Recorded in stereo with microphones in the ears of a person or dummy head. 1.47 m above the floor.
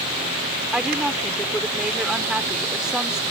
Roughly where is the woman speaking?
Centre.